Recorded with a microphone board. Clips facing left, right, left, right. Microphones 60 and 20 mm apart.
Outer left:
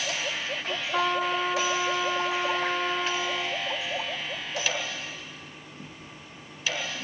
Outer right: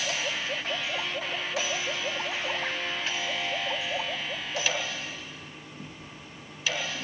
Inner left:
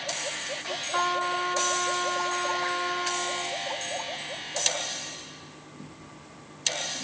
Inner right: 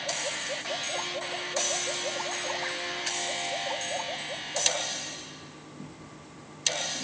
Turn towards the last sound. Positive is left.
turn(degrees=80)